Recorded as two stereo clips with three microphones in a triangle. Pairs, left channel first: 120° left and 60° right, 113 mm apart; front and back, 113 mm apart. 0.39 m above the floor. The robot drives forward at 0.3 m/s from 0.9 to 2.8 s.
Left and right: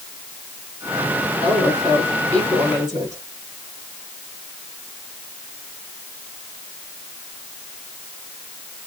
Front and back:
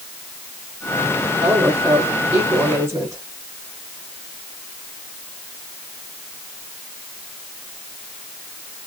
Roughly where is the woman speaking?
Right.